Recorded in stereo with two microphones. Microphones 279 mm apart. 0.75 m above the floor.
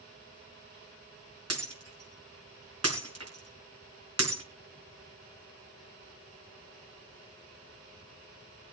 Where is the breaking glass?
60° right (ahead or behind), 4.5 m.